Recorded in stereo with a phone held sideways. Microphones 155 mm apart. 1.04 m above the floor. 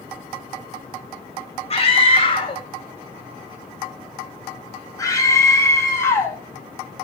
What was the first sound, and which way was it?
A scream, 40° left (ahead or behind).